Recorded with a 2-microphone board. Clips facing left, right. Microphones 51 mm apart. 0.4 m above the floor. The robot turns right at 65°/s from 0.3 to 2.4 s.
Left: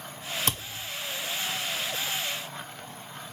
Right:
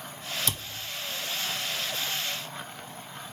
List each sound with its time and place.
0.5 s a thud: 45° left (ahead or behind), 0.8 m; by 0.9 s 65° left (ahead or behind), 0.8 m